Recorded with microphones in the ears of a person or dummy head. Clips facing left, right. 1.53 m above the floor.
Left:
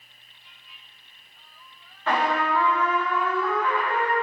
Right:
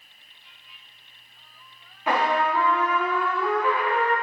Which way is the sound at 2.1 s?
15° right (ahead or behind).